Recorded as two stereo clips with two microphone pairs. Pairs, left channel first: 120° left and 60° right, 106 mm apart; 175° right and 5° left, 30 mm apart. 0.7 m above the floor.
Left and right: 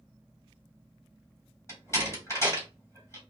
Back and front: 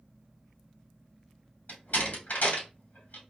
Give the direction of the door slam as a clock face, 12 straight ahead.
6 o'clock.